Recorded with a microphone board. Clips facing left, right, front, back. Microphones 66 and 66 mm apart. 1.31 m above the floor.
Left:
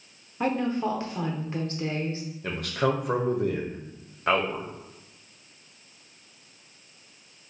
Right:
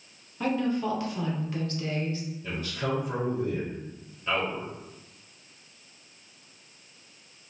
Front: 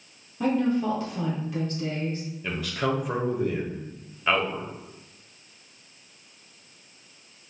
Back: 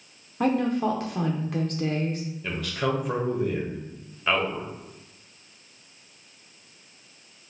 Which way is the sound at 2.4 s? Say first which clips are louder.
Left 6 dB, even; 85° left.